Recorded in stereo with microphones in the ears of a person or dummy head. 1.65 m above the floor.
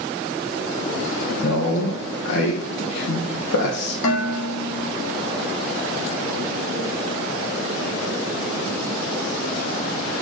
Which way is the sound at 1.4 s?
70° left (ahead or behind).